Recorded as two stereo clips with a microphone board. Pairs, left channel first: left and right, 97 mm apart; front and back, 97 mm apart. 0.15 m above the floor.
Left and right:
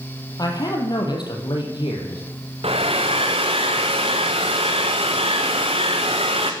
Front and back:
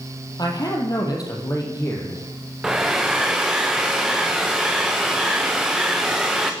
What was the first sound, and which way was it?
A man speaking, 45° left.